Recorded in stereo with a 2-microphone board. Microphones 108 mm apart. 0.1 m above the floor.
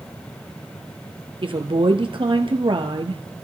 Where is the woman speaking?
55° right (ahead or behind), 2.0 m.